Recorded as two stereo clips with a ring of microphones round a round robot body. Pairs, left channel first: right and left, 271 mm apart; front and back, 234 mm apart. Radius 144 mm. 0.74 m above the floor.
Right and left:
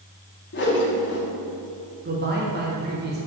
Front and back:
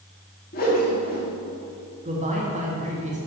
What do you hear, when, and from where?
0.5 s a whoosh: 50° right, 1.8 m
2.0 s a man speaking: 130° left, 1.6 m